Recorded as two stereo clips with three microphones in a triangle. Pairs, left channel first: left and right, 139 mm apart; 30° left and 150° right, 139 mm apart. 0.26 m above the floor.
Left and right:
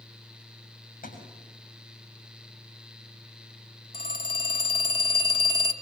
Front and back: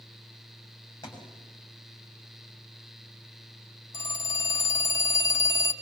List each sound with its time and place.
1.0 s a thud: 90° left, 6.5 m
3.9 s a phone ringing: 80° left, 0.9 m